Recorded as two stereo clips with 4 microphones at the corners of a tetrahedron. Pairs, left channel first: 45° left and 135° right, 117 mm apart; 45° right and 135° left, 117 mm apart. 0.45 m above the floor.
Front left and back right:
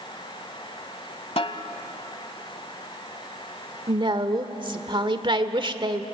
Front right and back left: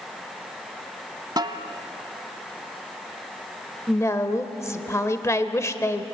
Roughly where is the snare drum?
Left.